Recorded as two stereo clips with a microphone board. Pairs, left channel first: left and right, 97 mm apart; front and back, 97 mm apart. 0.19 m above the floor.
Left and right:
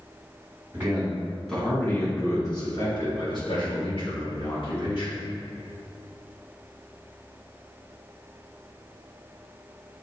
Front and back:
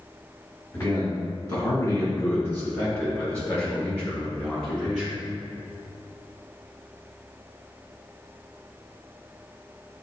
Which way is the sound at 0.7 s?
35° right.